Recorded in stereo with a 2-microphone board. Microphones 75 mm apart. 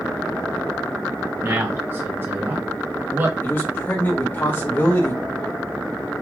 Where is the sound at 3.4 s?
30° left (ahead or behind), 1.1 m.